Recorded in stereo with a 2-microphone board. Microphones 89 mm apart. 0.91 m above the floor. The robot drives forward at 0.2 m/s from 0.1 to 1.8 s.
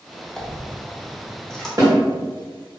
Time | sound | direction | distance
0.4 | a dropped coin | 5° left (ahead or behind) | 0.5 m
1.8 | a snare drum | 40° right (ahead or behind) | 0.9 m